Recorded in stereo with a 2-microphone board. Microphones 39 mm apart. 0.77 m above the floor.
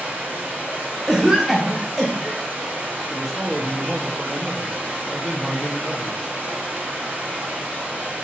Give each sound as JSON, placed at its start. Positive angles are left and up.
{"t": 0.0, "sound": "running water", "side_deg": -50, "distance_m": 1.8}
{"t": 1.1, "sound": "a cough", "side_deg": 0, "distance_m": 0.6}
{"t": 3.1, "sound": "a man speaking", "side_deg": 0, "distance_m": 0.6}